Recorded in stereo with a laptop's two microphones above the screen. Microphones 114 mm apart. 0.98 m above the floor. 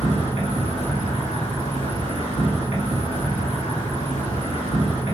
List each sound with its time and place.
0.0 s an insect: 85° left, 1.6 m